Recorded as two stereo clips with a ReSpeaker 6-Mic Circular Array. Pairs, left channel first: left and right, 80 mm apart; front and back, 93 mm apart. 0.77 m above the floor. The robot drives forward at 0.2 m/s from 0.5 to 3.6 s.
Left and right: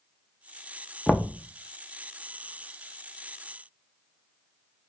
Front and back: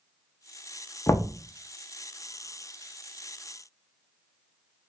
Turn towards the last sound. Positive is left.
turn(degrees=155)